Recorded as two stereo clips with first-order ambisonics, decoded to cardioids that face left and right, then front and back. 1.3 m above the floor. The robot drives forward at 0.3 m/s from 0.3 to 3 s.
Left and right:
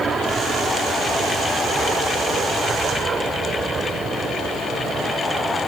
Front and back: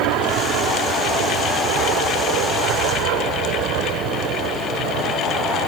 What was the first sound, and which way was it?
An aircraft, 160° right.